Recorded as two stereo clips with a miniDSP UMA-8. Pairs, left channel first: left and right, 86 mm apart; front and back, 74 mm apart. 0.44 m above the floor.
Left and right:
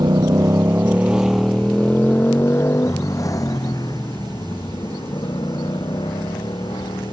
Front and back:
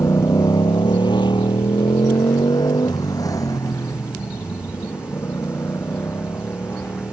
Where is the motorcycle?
50° right; by 7.1 s 60° left.